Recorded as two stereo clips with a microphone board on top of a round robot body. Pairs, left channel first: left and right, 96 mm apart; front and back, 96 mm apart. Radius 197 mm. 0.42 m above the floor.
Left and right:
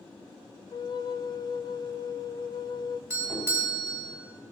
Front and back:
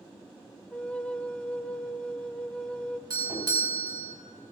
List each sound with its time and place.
0.7 s a flute: 75° left, 0.6 m
3.1 s a doorbell: 145° right, 3.5 m